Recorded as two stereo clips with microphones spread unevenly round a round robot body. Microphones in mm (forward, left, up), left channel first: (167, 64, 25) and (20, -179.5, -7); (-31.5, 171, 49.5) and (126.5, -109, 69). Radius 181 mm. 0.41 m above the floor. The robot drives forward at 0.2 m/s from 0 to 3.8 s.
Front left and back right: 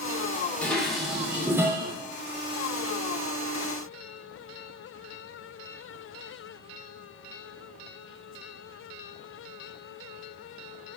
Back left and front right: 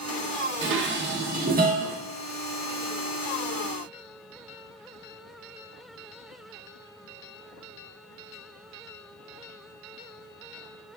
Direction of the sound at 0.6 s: 35° right.